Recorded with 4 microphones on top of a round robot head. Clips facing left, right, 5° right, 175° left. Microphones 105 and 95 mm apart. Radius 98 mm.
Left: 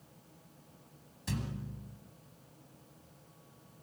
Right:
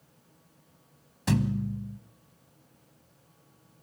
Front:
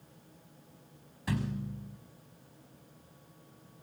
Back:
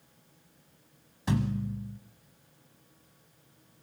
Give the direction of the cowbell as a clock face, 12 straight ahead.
I don't hear a cowbell.